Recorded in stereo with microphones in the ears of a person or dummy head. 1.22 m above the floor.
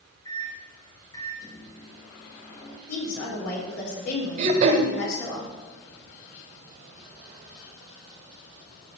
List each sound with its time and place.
0.2 s a microwave: 15° left (ahead or behind), 1.4 m
2.9 s a woman speaking: 85° left, 4.5 m
4.4 s throat clearing: 40° right (ahead or behind), 1.4 m